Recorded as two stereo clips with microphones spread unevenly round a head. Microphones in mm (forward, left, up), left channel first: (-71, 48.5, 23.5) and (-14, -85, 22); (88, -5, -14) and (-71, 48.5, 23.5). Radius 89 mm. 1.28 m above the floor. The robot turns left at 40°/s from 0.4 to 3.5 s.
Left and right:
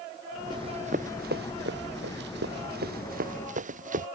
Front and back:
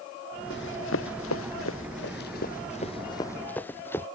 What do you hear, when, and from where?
0.5 s running footsteps: straight ahead; by 4.1 s 100° right